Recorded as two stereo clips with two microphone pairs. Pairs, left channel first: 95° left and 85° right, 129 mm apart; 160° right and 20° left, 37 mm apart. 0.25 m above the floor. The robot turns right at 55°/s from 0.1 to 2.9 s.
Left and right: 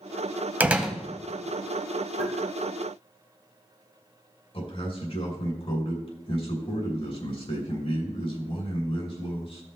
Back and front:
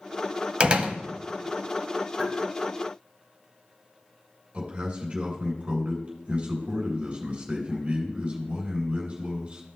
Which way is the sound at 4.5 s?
75° left.